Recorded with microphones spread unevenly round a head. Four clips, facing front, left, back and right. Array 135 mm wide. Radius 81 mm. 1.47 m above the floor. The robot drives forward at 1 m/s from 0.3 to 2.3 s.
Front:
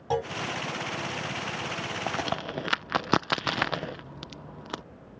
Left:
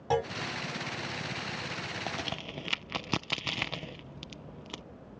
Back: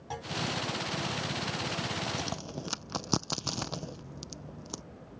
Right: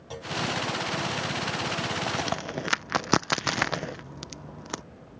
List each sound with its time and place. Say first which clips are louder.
0.1 s a clunk: left 9 dB, front 11 dB; 60° left
2.1 s a crack: right 8 dB, front 6 dB; 30° right; by 4.8 s 60° right